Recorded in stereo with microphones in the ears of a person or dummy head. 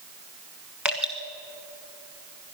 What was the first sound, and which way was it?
Dripping, 10° right (ahead or behind).